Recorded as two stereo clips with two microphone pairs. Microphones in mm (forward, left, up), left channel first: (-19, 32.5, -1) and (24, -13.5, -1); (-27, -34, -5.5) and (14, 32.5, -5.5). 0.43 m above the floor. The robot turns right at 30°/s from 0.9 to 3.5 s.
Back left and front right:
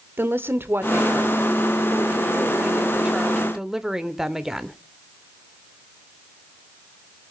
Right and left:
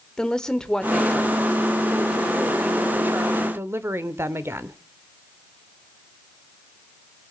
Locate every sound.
0.2 s a woman speaking: 50° right, 1.1 m; by 4.8 s 30° left, 1.1 m